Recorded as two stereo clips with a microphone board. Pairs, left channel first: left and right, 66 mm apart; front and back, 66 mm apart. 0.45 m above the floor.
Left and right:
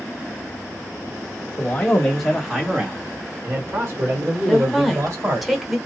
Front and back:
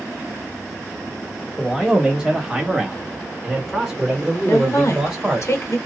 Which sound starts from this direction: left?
A man speaking, at 1.6 s.